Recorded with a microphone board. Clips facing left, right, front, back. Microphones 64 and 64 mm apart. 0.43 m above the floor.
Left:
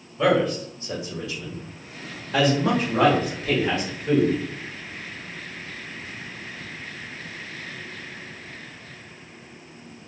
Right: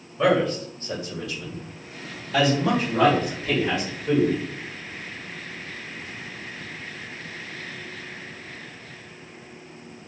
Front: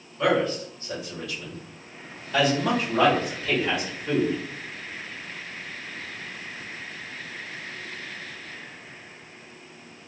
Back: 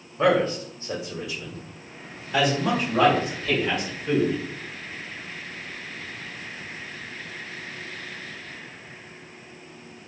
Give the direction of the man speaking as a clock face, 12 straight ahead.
6 o'clock.